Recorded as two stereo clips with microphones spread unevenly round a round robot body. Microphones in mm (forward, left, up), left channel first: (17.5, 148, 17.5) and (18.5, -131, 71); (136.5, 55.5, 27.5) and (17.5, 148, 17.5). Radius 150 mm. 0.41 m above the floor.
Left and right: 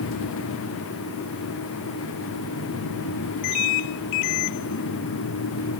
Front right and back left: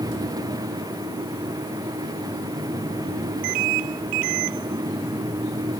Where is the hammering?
I don't hear hammering.